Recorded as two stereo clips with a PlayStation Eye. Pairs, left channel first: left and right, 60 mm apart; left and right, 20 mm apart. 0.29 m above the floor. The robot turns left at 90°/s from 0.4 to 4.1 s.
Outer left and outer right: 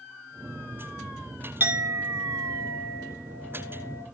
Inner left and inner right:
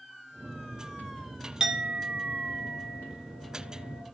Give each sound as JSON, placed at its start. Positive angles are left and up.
{"t": 1.6, "sound": "a clink", "azimuth_deg": -35, "distance_m": 2.0}